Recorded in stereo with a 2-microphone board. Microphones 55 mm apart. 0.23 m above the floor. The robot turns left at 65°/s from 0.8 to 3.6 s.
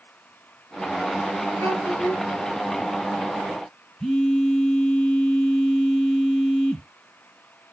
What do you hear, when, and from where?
1.6 s a child speaking: 105° left, 2.5 m; by 2.2 s 65° left, 2.5 m
4.0 s a phone buzzing: 10° left (ahead or behind), 1.4 m